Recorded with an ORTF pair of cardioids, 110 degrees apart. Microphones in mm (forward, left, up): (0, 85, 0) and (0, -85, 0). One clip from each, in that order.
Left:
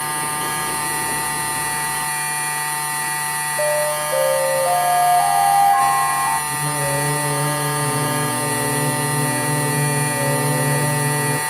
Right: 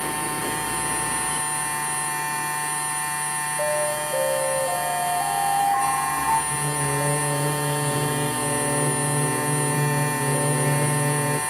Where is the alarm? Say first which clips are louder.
Left 5 dB; 65° left, 0.8 m.